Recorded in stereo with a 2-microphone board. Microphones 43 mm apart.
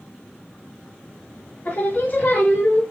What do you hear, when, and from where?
1.6 s singing: 35° left (ahead or behind), 2.5 m